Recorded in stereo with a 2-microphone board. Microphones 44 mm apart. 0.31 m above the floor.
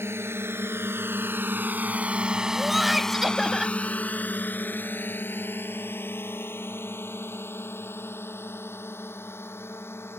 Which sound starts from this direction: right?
A drone, at 0.0 s.